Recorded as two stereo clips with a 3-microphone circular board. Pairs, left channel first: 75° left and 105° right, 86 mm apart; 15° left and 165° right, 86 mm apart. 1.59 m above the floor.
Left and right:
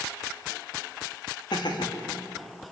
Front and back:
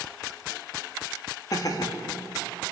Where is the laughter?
55° left, 2.5 m.